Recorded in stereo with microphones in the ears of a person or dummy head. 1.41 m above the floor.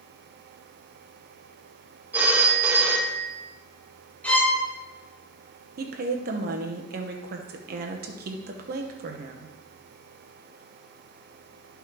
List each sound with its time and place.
2.1 s a phone ringing: 10° right (ahead or behind), 1.3 m
4.2 s a violin: 10° left (ahead or behind), 2.5 m
5.8 s a woman speaking: 55° right (ahead or behind), 1.0 m